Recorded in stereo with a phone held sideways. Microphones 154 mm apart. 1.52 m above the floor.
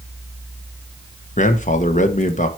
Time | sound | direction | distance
1.4 | a man speaking | 55° left (ahead or behind) | 1.0 m